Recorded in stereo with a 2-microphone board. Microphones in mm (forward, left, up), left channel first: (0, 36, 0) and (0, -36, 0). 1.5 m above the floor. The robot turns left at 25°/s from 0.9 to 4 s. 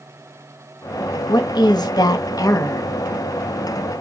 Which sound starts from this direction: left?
A woman speaking, at 1.3 s.